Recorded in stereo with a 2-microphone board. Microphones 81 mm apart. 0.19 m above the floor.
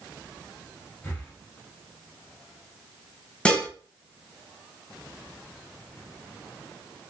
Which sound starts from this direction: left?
Breathing, at 1.0 s.